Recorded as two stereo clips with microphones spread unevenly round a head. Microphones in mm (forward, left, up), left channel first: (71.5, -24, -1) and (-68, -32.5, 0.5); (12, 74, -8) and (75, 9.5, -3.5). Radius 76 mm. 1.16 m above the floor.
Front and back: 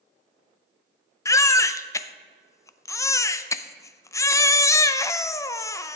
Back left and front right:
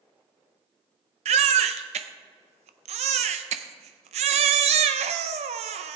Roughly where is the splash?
No splash in this recording.